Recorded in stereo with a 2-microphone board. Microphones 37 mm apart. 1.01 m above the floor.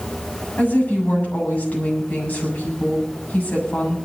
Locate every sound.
0.6 s a woman speaking: 55° left (ahead or behind), 7.5 m